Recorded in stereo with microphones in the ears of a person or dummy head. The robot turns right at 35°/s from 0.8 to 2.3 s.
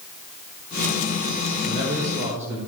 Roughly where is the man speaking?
Right.